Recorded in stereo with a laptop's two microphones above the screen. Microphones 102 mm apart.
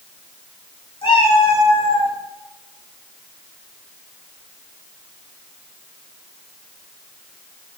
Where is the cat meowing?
60° left (ahead or behind), 1.2 m.